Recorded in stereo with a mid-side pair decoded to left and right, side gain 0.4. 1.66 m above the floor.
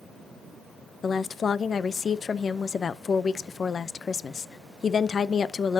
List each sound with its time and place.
1.0 s a woman speaking: 50° left, 0.7 m